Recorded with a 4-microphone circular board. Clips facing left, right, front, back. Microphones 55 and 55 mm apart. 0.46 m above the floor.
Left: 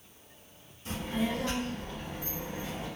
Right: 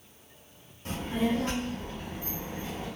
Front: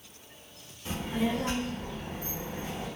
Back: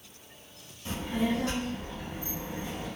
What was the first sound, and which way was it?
A child speaking, 70° right.